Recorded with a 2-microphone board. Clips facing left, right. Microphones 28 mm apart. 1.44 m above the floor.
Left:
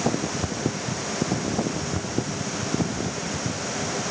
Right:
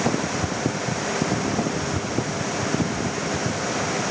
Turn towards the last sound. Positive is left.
No sound to turn to.